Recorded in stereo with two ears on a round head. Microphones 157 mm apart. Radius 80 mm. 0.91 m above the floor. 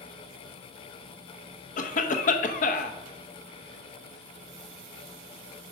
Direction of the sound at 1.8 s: 45° left (ahead or behind).